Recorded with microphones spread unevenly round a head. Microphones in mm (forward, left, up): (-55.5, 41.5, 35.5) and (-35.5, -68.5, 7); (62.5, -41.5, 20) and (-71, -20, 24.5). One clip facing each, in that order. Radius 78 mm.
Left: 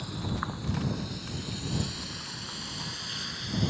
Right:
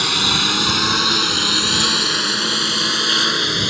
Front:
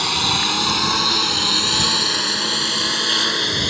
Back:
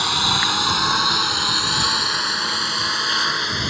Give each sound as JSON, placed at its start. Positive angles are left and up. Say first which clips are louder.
{"t": 0.0, "sound": "a lawn mower", "louder": "right 12 dB, even", "azimuth_deg": -85}